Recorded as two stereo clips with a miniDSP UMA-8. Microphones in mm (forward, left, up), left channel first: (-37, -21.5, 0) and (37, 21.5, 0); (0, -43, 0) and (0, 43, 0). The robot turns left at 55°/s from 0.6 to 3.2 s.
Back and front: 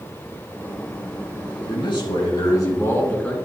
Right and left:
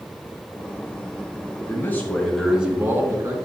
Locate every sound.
1.6 s a man speaking: 140° right, 3 m; by 3.4 s 135° left, 3 m